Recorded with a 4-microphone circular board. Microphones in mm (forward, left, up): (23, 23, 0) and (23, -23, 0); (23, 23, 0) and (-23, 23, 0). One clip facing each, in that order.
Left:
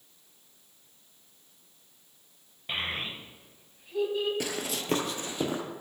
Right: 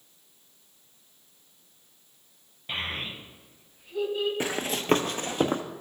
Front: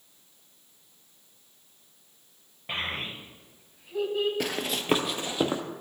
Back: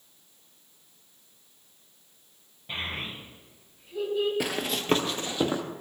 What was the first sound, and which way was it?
A child speaking, 10° left.